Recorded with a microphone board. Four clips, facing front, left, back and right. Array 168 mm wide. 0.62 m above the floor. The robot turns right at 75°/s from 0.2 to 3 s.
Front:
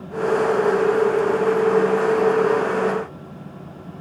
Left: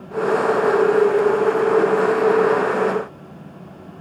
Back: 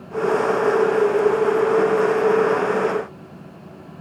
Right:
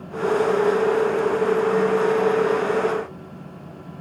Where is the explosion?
No explosion in this recording.